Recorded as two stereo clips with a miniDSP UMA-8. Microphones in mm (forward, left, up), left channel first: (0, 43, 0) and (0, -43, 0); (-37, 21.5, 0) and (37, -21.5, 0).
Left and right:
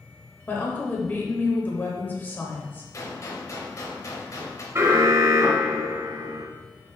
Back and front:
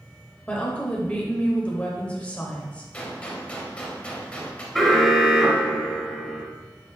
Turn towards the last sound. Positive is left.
turn(degrees=-120)